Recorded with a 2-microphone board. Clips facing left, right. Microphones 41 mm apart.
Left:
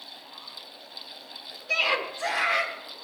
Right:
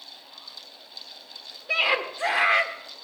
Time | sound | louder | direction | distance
1.7 | a scream | right 2 dB | 20° right (ahead or behind) | 1.4 m